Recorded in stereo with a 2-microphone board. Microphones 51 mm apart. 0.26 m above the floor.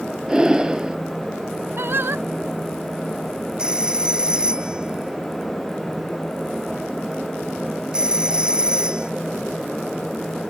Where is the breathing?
20° right (ahead or behind).